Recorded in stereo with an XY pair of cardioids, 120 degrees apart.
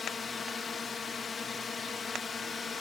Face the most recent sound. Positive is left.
turn(degrees=30)